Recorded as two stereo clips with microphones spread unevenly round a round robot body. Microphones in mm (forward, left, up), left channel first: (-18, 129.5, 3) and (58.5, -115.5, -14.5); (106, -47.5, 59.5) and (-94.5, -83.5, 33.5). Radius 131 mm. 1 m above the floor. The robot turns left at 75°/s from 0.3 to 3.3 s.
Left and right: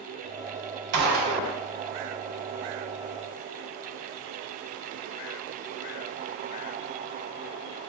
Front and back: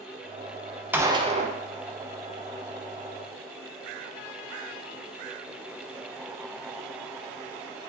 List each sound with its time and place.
0.9 s a gunshot: 95° right, 0.5 m; by 1.6 s 145° right, 0.5 m